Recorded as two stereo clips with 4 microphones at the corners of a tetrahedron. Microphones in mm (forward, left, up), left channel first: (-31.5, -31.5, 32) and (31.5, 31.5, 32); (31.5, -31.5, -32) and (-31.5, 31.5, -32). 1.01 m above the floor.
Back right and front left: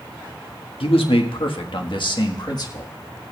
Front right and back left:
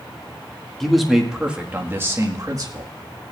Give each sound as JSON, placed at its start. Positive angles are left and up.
{"t": 0.8, "sound": "a man speaking", "azimuth_deg": -130, "distance_m": 1.4}